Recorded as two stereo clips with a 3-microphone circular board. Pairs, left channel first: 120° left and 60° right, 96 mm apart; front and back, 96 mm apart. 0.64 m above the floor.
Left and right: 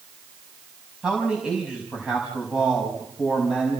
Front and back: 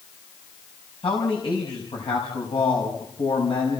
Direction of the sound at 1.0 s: 20° left.